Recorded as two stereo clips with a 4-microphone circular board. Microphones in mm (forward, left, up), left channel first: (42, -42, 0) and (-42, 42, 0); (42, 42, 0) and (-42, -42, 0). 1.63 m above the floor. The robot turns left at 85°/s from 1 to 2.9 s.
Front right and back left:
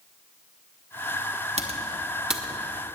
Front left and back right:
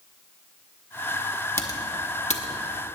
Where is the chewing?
No chewing in this recording.